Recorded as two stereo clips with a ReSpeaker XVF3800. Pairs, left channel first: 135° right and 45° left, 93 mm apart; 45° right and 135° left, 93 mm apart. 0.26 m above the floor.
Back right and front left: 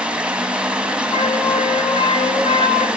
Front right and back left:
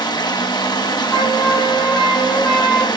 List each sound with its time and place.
0.0 s running water: 30° right, 1.4 m
1.1 s a flute: 125° right, 3.5 m